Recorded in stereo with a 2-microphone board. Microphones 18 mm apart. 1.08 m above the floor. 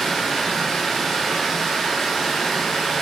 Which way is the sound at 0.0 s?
25° left (ahead or behind).